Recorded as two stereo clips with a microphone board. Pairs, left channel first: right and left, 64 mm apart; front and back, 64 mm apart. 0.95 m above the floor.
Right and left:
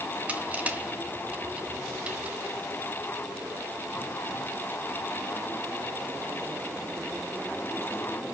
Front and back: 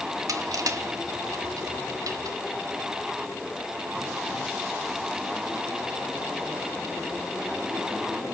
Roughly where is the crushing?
Behind.